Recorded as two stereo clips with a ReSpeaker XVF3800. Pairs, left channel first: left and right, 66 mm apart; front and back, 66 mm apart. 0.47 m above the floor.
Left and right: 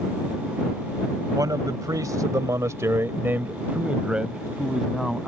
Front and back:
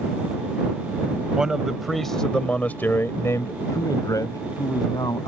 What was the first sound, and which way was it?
A man speaking, 100° right.